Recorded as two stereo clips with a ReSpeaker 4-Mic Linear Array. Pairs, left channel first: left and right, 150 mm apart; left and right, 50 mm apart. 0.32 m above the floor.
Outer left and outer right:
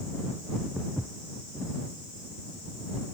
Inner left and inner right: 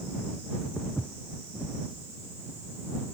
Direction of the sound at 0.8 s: 5° right (ahead or behind).